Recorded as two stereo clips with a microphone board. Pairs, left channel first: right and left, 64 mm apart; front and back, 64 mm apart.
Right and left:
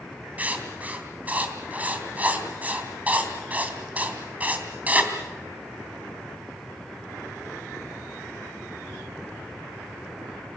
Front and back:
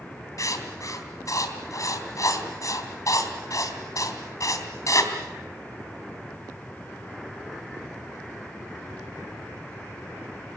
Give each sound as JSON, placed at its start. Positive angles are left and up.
{"t": 0.4, "sound": "writing", "azimuth_deg": 25, "distance_m": 3.0}